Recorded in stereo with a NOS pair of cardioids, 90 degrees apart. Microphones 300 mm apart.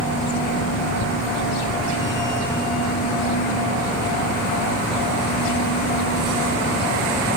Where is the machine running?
25° left, 2.5 m.